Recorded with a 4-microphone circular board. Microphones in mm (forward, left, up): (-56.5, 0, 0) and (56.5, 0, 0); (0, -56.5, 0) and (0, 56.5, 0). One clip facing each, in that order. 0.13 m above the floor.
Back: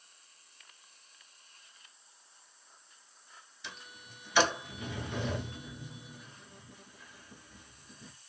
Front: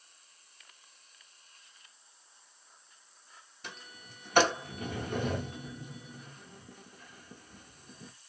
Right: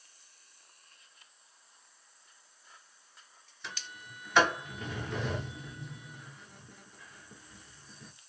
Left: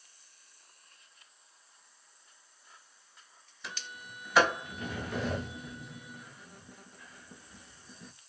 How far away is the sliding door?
About 0.9 m.